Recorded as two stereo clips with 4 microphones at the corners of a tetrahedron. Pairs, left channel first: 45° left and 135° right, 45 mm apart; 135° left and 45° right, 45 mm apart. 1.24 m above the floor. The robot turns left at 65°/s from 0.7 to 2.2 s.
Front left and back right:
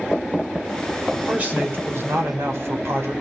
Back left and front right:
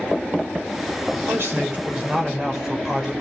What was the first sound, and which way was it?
A man speaking, 55° right.